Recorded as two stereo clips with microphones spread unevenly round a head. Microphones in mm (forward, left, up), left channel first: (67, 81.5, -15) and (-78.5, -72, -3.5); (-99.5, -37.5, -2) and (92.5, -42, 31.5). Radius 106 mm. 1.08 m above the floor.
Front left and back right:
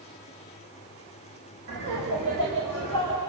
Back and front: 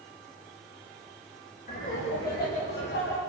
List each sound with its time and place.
1.7 s laughter: 135° right, 7 m; by 3.2 s 155° right, 5.5 m